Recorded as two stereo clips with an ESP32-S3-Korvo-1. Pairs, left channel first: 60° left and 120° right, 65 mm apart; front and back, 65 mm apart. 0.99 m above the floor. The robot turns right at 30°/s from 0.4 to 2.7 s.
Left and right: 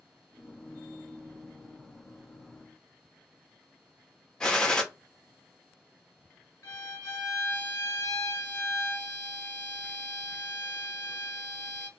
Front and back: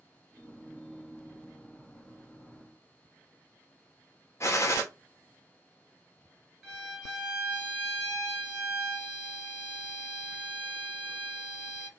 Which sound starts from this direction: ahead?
A gunshot, at 4.4 s.